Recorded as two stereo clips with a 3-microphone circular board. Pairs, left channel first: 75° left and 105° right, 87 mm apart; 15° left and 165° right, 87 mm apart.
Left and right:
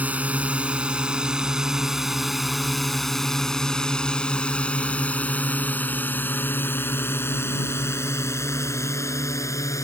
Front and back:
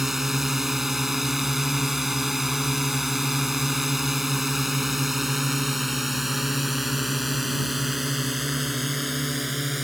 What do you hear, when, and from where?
0.0 s a drone: 85° right; by 9.8 s 105° left